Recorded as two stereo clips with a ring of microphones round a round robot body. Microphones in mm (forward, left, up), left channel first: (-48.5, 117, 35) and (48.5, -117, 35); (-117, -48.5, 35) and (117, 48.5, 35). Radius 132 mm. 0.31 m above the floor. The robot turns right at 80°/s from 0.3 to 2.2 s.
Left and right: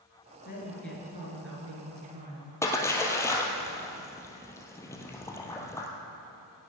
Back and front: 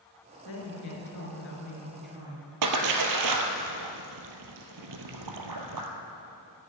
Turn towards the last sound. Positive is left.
turn(degrees=35)